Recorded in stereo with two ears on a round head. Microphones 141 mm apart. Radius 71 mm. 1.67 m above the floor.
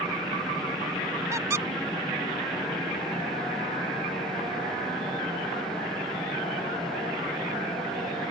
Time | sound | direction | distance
1.3 | a squeak | 20° right (ahead or behind) | ?